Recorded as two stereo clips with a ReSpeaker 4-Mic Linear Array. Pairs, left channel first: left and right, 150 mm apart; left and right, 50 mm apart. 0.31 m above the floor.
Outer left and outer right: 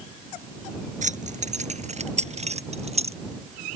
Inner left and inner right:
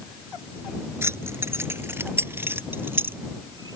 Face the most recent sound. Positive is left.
turn(degrees=-45)  # may be behind; listen again after turning